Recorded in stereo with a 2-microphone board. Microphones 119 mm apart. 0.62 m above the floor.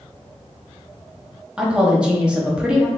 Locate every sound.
1.6 s a woman speaking: 10° right (ahead or behind), 0.9 m